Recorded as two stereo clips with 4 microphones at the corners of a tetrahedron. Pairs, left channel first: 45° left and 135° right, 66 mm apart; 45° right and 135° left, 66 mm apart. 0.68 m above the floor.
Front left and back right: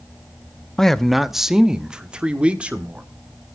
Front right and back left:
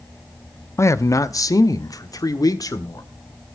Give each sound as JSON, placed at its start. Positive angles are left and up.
{"t": 0.8, "sound": "a man speaking", "azimuth_deg": -35, "distance_m": 0.6}